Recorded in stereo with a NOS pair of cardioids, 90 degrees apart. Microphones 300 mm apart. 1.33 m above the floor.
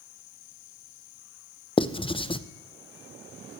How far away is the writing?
About 0.5 m.